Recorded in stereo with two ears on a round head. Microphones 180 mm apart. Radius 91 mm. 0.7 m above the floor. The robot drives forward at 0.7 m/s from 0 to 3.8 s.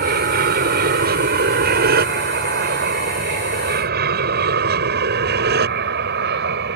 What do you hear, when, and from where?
0.0 s an aircraft: 50° right (ahead or behind); by 6.8 s 60° right (ahead or behind)